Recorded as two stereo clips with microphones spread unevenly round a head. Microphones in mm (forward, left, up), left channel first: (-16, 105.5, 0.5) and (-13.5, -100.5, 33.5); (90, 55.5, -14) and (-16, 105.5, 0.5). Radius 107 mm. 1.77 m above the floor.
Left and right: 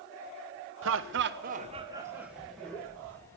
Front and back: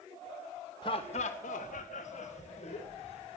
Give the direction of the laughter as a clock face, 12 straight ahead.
3 o'clock.